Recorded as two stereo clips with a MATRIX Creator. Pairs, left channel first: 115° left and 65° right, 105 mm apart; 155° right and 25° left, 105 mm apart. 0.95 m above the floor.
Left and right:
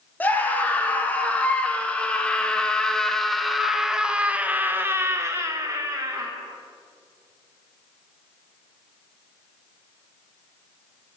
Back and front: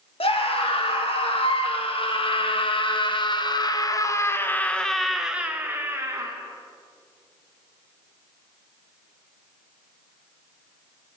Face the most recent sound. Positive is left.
turn(degrees=-25)